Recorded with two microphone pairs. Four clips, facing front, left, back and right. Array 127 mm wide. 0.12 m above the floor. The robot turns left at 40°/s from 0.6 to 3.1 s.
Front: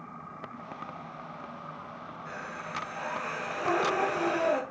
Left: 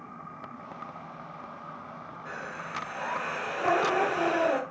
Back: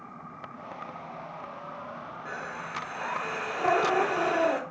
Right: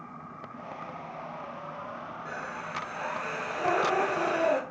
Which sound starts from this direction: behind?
Breathing, at 2.2 s.